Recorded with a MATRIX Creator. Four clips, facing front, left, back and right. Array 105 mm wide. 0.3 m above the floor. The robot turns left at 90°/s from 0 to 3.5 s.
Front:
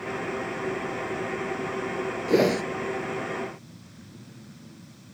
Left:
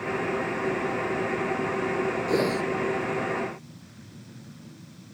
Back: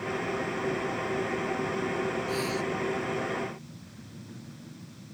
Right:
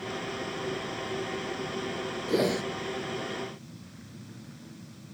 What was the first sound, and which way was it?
A whoosh, 10° left.